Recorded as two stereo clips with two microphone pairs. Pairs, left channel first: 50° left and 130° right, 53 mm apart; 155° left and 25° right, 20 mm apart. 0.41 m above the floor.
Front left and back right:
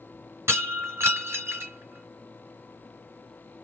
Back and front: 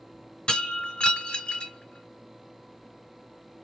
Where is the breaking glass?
165° right, 3 m.